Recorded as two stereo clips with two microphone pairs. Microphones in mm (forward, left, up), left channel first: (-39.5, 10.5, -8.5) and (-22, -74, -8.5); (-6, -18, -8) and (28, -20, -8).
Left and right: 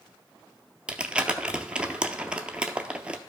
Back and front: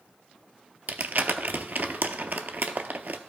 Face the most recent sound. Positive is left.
turn(degrees=-5)